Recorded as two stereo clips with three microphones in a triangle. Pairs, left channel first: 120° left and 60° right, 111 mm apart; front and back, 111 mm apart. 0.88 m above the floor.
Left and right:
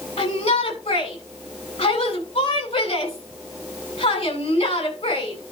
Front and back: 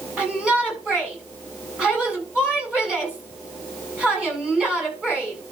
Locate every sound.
0.2 s a shout: 100° left, 7 m